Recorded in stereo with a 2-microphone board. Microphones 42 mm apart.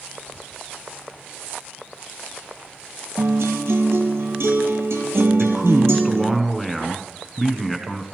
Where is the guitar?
80° right, 1.5 m.